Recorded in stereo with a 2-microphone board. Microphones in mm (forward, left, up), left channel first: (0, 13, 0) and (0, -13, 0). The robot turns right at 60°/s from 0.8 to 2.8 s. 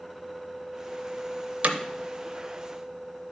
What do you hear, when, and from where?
1.6 s hammering: 55° right (ahead or behind), 0.6 m; by 1.8 s 65° right (ahead or behind), 0.6 m